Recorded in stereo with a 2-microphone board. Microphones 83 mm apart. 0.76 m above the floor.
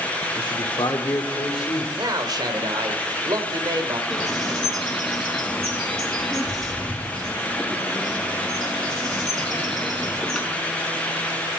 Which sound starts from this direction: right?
A man speaking, at 1.9 s.